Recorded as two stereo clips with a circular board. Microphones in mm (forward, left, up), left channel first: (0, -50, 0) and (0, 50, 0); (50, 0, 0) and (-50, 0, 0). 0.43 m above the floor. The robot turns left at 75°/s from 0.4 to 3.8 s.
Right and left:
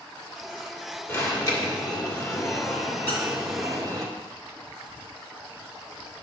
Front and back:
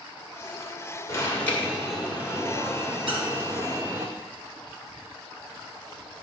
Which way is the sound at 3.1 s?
155° right.